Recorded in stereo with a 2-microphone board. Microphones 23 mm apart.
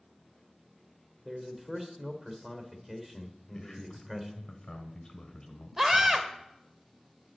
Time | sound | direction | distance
1.2 | a man speaking | 15° right (ahead or behind) | 1.8 m
3.5 | a man speaking | 30° left (ahead or behind) | 1.6 m
5.8 | a scream | 15° right (ahead or behind) | 1.5 m